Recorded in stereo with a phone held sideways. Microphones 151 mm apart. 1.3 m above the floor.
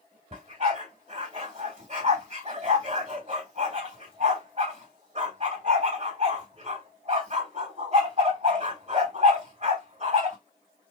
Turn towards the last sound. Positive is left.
turn(degrees=-45)  # may be behind; listen again after turning